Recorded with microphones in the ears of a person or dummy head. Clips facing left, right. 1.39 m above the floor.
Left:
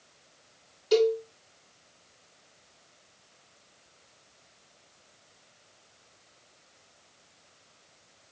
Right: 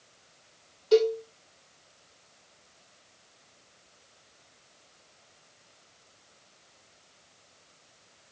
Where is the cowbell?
25° left (ahead or behind), 2 m.